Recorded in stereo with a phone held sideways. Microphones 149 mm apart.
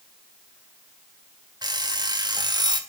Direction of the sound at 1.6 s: 30° right (ahead or behind).